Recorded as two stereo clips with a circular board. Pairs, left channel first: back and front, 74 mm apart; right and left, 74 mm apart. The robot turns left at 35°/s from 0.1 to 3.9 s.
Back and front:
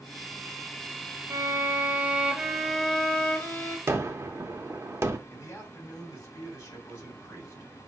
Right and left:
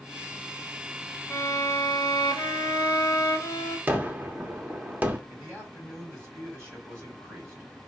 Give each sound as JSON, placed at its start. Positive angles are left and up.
{"t": 1.3, "sound": "a violin", "azimuth_deg": -45, "distance_m": 0.7}
{"t": 3.9, "sound": "a gunshot", "azimuth_deg": 30, "distance_m": 0.6}
{"t": 5.3, "sound": "a man speaking", "azimuth_deg": 135, "distance_m": 2.5}